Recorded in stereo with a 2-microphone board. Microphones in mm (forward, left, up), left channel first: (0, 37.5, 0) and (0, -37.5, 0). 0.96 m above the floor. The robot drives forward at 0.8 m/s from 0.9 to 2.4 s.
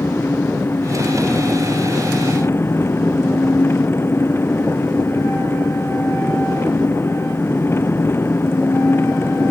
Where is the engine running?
30° left (ahead or behind).